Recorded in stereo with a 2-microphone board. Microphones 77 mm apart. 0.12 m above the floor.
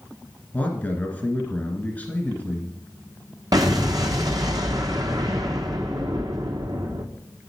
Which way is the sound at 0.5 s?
20° left (ahead or behind).